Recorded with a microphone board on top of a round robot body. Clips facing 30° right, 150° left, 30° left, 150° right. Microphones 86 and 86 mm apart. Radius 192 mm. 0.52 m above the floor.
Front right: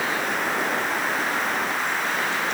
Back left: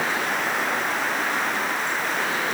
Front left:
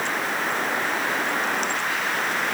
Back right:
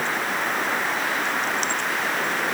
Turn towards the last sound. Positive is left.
No sound to turn to.